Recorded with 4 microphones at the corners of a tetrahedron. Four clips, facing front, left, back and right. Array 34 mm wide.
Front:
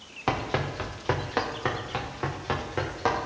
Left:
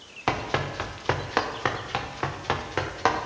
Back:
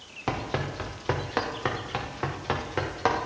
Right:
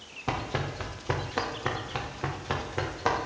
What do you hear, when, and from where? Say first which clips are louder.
0.3 s running footsteps: left 5 dB, front 2 dB; 70° left, 2.5 m; by 3.3 s 105° left, 4.5 m